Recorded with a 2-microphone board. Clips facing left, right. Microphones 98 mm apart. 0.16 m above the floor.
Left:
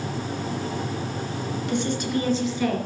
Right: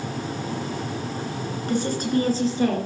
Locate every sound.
1.7 s a woman speaking: 40° right (ahead or behind), 2 m; by 2.8 s 35° right (ahead or behind), 3 m